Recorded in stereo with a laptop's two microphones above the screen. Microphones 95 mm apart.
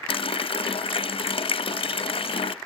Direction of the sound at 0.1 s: 70° left (ahead or behind).